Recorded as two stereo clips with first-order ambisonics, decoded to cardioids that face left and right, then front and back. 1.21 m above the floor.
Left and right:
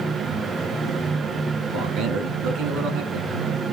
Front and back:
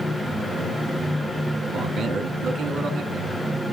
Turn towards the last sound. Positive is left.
turn(degrees=-120)